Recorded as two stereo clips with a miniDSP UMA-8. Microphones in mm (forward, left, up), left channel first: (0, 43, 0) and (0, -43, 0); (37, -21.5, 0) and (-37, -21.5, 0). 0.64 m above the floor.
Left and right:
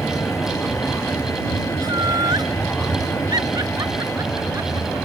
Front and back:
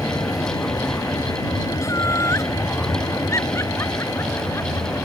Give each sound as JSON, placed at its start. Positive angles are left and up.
{"t": 0.0, "sound": "a vehicle", "azimuth_deg": 30}
{"t": 1.8, "sound": "laughter", "azimuth_deg": -50}